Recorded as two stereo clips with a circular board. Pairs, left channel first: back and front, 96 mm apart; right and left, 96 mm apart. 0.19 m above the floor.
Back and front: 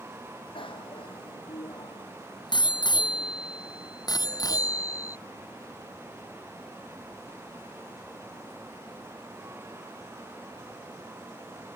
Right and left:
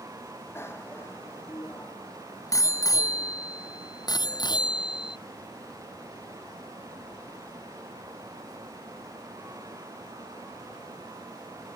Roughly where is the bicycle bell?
Behind right.